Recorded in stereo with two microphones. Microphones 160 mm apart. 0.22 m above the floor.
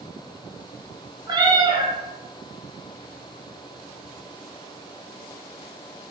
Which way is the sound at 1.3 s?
25° right (ahead or behind).